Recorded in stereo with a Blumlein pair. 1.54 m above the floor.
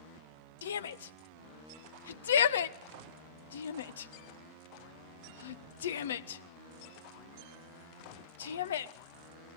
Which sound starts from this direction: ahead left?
A shout, at 0.6 s.